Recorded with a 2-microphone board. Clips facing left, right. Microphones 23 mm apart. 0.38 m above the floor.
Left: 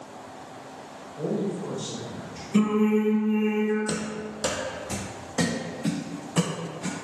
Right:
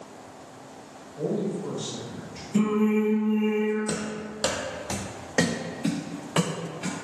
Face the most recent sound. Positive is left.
turn(degrees=-80)